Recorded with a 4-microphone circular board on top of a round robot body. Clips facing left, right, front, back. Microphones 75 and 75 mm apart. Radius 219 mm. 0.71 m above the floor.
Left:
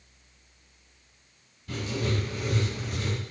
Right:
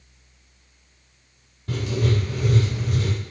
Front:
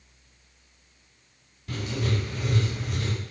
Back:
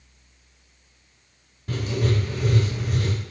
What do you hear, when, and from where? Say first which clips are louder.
1.7 s writing: right 5 dB, back 4 dB; 130° right, 4 m